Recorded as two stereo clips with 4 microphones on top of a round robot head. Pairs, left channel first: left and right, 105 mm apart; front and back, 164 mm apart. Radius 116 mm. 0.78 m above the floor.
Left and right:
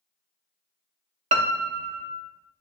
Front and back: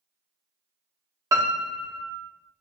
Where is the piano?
105° right, 0.6 m.